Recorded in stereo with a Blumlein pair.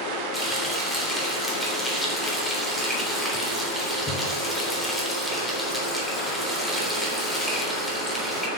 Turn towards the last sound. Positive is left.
turn(degrees=0)